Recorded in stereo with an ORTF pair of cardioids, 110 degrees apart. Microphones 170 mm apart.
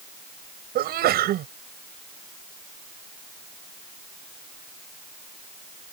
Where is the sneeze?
65° right.